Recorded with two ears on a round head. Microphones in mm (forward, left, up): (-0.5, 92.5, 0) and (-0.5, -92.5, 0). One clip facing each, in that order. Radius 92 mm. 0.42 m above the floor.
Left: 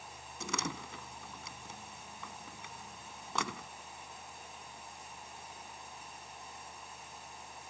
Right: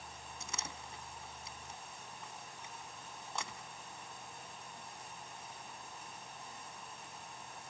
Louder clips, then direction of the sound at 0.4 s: Left 10 dB; 65° left (ahead or behind).